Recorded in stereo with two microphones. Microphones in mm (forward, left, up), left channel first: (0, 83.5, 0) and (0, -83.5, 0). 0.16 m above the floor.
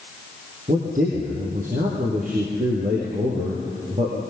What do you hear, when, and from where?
0.7 s a man speaking: 50° right (ahead or behind), 4 m